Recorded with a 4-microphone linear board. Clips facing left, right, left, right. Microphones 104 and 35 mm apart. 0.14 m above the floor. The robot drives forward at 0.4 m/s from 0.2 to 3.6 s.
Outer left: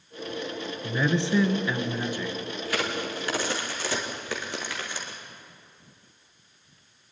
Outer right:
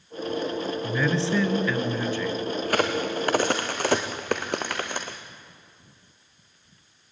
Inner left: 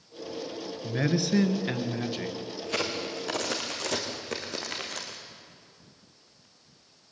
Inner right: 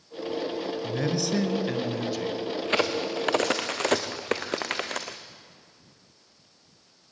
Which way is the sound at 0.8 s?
15° left (ahead or behind).